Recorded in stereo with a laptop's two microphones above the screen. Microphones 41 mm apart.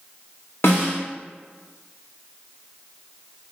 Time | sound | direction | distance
0.6 | a snare drum | 75° left (ahead or behind) | 1.5 m